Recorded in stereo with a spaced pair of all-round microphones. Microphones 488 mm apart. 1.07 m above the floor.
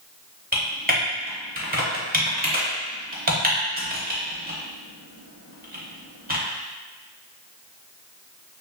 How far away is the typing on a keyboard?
About 1.0 m.